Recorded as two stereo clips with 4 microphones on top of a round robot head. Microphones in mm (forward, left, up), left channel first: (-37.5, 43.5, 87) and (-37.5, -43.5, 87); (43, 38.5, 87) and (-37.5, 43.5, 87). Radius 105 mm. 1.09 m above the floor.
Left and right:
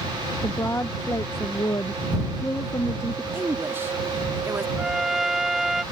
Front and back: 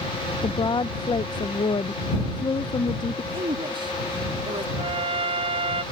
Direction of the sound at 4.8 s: 175° right.